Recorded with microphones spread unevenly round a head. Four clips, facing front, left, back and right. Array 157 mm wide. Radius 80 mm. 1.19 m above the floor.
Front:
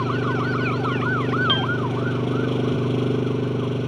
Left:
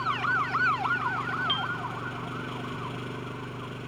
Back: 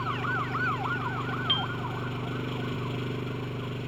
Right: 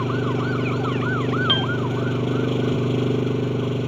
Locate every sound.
0.0 s an engine running: 45° right
1.5 s a piano: 45° right